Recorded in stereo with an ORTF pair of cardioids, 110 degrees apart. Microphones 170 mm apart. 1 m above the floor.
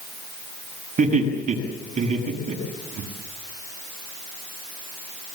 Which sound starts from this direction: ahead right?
Laughter, at 1.0 s.